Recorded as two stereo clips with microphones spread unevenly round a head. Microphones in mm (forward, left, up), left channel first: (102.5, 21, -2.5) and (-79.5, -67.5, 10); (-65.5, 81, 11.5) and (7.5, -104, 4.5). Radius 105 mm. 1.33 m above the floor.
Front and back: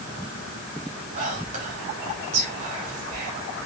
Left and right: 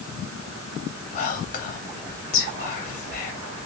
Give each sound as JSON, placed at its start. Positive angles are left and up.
{"t": 1.1, "sound": "whispering", "azimuth_deg": 155, "distance_m": 0.6}